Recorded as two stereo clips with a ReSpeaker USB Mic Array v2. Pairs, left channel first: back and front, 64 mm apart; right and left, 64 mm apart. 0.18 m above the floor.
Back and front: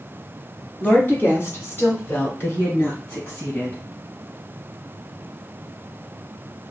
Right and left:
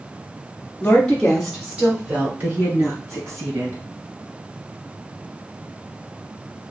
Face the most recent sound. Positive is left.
turn(degrees=125)